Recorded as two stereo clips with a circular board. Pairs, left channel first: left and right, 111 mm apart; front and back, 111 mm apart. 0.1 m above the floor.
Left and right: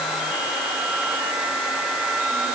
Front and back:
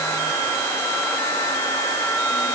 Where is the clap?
I don't hear a clap.